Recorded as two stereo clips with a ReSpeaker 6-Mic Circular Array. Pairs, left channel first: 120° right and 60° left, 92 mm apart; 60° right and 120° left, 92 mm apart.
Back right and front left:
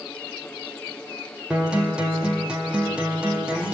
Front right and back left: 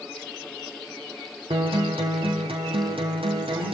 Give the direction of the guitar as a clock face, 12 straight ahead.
7 o'clock.